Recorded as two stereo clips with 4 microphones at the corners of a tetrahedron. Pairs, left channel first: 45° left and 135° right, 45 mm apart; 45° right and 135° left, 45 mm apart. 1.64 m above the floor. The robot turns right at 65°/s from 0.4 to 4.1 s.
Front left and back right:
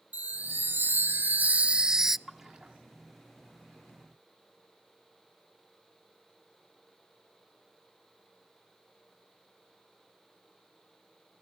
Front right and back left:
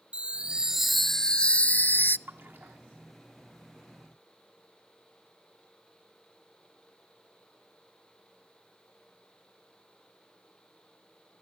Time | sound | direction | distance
0.1 | a chime | 170° right | 0.5 m
2.3 | a splash | 135° left | 1.8 m